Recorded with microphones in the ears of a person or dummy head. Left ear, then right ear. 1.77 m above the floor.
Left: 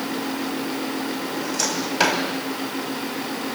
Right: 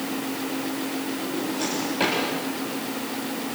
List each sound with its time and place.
1.2 s a drawer: 45° left (ahead or behind), 4 m